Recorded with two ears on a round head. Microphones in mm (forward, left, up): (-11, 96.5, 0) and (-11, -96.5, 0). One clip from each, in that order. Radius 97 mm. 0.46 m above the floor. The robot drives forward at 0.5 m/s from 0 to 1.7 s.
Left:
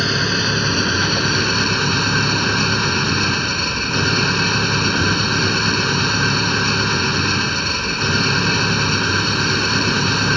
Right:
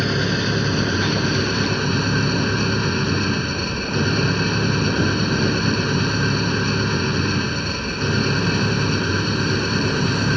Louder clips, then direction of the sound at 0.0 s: Left 4 dB; 30° left (ahead or behind).